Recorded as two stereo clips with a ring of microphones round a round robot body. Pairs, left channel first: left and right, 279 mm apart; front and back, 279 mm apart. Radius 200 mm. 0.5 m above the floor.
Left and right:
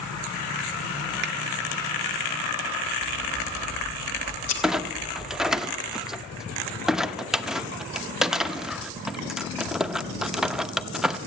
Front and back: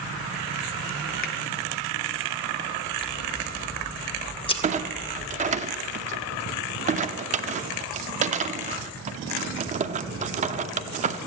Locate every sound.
1.2 s a finger snap: 50° right, 0.6 m
3.0 s scissors: 70° left, 2 m
4.6 s a clunk: 175° right, 0.7 m